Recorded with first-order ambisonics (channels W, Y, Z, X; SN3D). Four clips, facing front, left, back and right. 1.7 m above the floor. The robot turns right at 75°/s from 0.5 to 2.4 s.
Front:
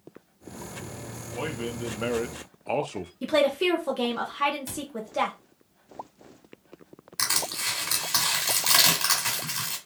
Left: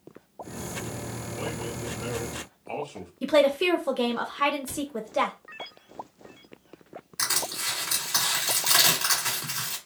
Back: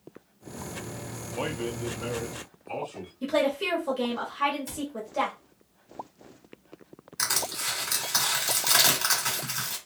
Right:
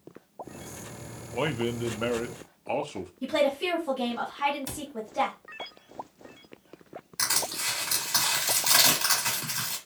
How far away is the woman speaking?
About 0.8 m.